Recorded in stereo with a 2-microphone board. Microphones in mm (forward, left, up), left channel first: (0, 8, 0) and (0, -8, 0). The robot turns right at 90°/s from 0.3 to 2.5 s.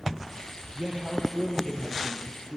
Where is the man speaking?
60° right, 4.5 m; by 2.6 s 100° left, 4.5 m.